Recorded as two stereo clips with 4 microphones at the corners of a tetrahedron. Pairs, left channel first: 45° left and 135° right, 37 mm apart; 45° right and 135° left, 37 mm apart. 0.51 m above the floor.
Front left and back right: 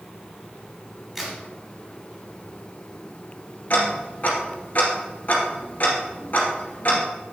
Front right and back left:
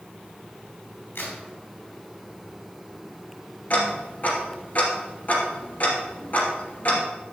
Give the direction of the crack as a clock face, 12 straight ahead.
2 o'clock.